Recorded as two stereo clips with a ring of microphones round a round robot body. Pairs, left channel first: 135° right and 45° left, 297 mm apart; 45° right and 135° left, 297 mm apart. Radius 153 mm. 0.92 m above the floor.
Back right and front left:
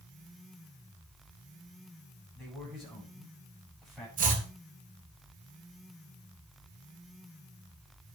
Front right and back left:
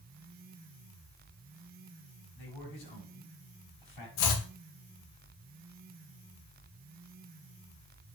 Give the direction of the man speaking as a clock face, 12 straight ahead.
2 o'clock.